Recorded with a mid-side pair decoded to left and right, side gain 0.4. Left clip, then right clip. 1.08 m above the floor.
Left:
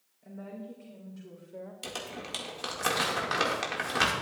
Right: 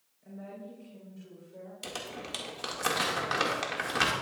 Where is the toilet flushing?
No toilet flushing in this recording.